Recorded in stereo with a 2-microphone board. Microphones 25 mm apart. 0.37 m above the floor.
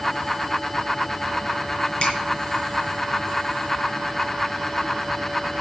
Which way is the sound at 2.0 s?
55° left (ahead or behind).